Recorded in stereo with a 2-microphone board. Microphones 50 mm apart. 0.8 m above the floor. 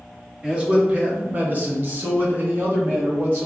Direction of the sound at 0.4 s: 15° right (ahead or behind).